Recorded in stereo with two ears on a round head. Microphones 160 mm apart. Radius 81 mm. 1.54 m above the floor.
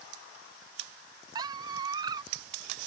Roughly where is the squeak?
Right.